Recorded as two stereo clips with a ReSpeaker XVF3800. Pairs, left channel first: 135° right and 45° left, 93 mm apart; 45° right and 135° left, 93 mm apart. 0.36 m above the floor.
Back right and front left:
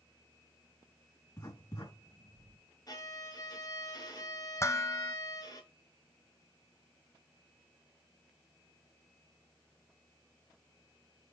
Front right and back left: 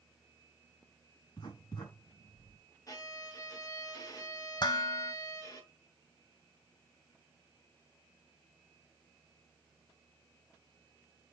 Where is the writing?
85° right, 4 m.